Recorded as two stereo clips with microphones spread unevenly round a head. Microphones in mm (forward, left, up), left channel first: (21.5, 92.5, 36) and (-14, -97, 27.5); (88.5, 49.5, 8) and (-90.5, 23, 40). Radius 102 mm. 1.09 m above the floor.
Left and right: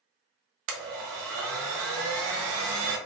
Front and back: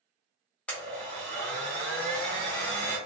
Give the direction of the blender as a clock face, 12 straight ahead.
3 o'clock.